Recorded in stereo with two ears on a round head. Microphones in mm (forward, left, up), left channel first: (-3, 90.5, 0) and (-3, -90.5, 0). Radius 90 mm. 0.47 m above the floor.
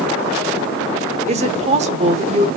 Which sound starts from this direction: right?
A woman speaking, at 1.3 s.